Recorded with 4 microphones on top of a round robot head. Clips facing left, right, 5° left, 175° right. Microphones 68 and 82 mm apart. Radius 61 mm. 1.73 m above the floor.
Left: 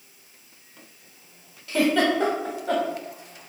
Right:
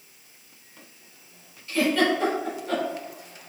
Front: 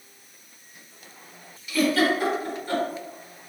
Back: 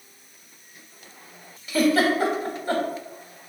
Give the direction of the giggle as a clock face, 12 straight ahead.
8 o'clock.